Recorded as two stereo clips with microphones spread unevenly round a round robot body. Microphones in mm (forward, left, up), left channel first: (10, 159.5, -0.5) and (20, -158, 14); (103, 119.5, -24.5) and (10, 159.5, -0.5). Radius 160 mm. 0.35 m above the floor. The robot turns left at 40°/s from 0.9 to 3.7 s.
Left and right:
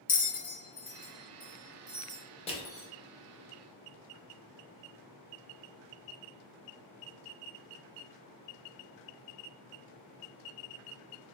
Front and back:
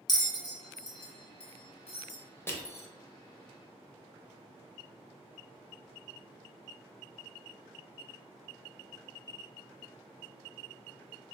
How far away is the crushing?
About 0.7 m.